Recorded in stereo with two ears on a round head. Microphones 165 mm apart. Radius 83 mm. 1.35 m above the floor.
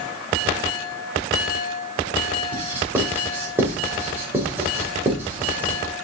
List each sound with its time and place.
2.5 s writing: 10° right (ahead or behind), 3.5 m